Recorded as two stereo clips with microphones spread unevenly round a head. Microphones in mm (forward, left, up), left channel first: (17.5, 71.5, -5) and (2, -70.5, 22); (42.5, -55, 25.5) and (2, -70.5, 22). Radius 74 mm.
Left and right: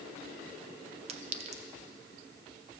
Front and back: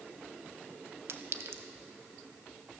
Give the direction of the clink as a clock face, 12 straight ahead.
5 o'clock.